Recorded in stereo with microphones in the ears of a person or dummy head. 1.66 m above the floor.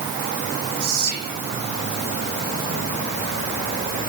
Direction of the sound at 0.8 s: 55° right (ahead or behind).